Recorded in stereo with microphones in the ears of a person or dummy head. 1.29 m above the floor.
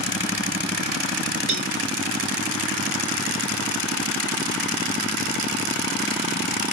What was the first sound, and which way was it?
A cowbell, 25° right (ahead or behind).